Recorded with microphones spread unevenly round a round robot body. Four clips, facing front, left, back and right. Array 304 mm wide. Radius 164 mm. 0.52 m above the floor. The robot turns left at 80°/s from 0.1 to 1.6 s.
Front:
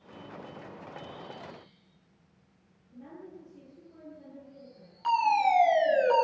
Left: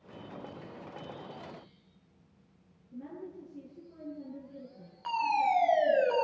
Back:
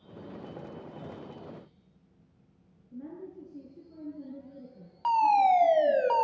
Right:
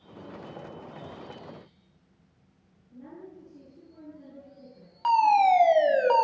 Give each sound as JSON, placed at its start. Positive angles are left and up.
{"t": 2.9, "sound": "a woman speaking", "azimuth_deg": 170, "distance_m": 9.5}
{"t": 5.0, "sound": "a fire alarm", "azimuth_deg": -110, "distance_m": 5.0}